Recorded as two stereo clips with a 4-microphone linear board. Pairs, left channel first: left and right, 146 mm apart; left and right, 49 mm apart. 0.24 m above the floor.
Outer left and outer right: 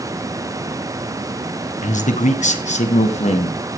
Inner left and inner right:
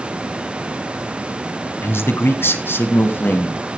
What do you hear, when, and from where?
1.8 s a man speaking: 55° left (ahead or behind), 1.6 m; by 3.6 s 45° left (ahead or behind), 1.9 m